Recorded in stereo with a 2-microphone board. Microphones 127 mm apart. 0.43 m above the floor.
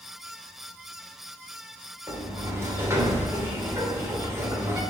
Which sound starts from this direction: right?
A sliding door, at 2.1 s.